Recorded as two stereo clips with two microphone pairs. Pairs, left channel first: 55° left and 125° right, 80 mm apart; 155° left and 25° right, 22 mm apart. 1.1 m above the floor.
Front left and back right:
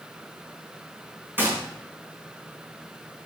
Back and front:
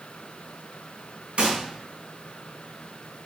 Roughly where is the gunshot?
Ahead right.